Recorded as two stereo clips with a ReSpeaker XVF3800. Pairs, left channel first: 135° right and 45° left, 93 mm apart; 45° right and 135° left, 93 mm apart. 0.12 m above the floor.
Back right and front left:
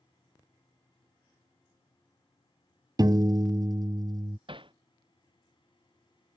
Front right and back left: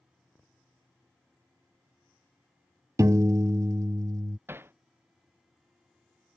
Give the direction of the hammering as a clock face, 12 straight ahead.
10 o'clock.